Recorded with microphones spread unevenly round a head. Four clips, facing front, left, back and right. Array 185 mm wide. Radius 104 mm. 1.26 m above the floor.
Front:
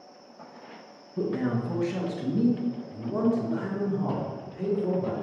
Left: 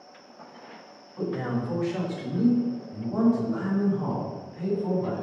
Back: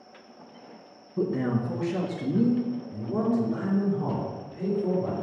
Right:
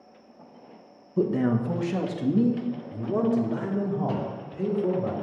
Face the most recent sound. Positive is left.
turn(degrees=-85)